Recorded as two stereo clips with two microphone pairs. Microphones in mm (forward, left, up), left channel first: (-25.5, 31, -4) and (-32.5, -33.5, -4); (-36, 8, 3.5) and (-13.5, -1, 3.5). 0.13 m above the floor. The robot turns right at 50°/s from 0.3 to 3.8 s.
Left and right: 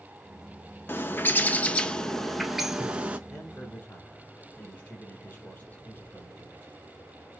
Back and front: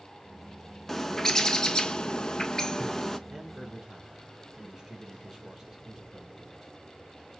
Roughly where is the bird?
Left.